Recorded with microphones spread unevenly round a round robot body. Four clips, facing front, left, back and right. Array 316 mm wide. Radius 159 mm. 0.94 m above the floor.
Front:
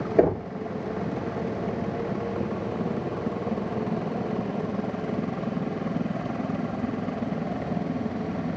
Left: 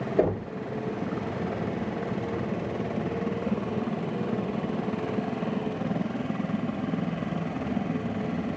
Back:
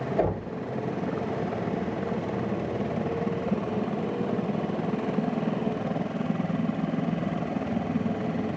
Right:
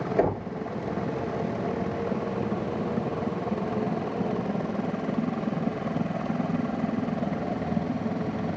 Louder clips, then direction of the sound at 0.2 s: Left 1 dB, front 7 dB; 5° left.